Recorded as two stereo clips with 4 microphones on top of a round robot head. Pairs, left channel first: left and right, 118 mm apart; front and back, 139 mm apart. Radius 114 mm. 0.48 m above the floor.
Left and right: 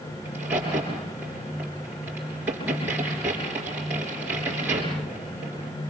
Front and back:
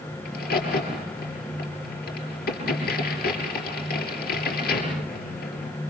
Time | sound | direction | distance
0.2 | a crack | 10° right | 6.5 m